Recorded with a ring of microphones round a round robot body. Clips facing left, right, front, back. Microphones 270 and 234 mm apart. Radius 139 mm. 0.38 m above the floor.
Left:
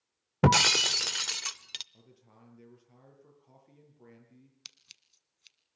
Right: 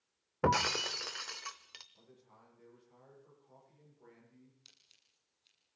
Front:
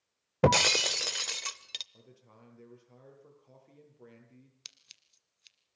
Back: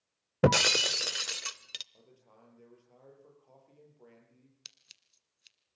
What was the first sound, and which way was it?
Breaking glass, 100° left.